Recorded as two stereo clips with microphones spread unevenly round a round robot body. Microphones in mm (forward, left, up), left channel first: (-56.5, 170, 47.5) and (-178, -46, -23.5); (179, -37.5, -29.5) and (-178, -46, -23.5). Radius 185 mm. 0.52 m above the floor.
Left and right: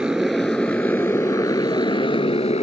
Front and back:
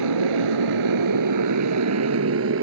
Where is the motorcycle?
155° left; by 2.6 s 125° left.